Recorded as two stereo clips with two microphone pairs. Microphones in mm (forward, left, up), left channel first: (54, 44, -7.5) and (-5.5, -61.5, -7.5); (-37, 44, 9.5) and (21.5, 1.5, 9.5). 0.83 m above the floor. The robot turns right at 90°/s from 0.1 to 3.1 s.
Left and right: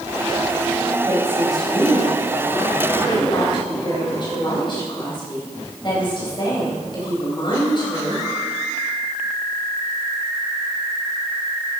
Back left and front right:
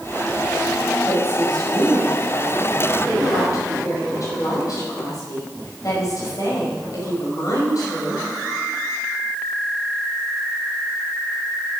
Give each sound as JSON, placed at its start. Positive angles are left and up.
{"t": 1.1, "sound": "a woman speaking", "azimuth_deg": -75, "distance_m": 5.0}